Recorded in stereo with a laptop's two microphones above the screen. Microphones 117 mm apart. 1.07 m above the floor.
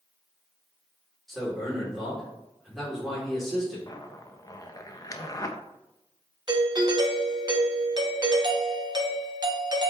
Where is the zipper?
30° left (ahead or behind), 0.8 m.